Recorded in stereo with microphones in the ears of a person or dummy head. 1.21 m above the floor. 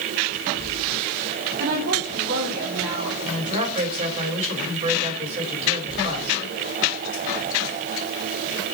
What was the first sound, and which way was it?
A woman speaking, 55° right (ahead or behind).